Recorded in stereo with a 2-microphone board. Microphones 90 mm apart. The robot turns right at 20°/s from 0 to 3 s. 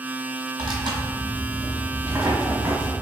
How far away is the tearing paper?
About 1.1 m.